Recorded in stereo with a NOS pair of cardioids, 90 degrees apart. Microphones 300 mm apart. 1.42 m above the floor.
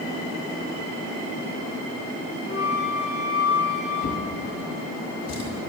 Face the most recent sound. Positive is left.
turn(degrees=60)